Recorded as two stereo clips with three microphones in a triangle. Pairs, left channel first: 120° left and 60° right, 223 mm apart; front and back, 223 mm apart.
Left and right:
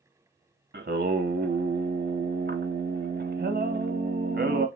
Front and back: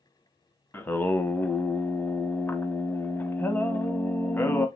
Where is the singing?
80° right, 0.6 m.